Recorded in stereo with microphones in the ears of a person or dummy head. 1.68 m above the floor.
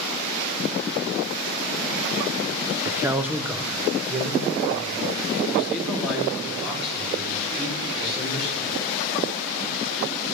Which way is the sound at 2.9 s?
10° right (ahead or behind).